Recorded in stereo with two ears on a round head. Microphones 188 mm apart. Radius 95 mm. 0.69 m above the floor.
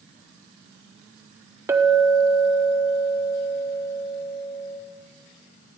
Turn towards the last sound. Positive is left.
turn(degrees=-15)  # may be behind; listen again after turning